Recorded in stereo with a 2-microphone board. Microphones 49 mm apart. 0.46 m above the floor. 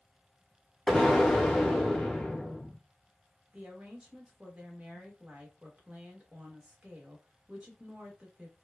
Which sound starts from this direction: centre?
An explosion, at 0.9 s.